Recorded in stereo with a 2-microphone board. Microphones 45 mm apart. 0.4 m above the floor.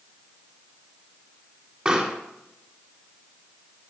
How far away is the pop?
About 1.8 m.